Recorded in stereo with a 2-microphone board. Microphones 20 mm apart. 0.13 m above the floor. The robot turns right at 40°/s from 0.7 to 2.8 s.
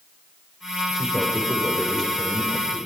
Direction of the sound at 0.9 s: 25° right.